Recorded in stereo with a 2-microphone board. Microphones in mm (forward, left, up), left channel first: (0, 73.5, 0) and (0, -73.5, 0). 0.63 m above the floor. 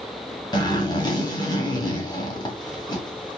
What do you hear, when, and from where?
0.5 s a zipper: 30° left (ahead or behind), 1.7 m